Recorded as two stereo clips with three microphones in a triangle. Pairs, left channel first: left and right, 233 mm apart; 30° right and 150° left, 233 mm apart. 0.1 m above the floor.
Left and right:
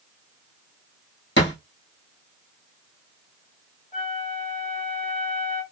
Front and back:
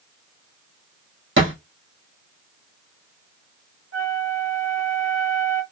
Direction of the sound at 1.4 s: 125° left.